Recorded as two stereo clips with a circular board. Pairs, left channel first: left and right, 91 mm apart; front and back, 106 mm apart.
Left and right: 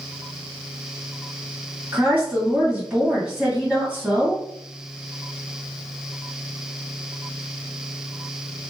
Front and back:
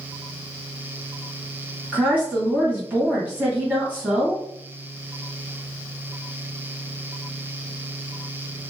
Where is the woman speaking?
135° right, 1.6 m.